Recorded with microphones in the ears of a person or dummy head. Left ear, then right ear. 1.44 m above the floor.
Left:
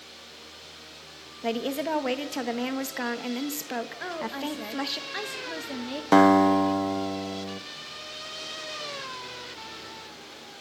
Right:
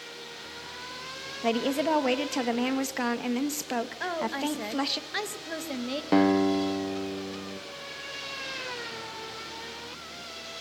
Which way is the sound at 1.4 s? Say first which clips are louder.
Right 2 dB; centre (ahead or behind).